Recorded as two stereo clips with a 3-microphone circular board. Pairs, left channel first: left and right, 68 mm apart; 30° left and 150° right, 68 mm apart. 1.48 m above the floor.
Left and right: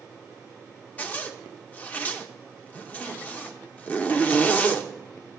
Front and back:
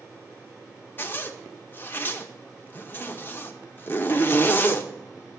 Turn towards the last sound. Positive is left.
turn(degrees=45)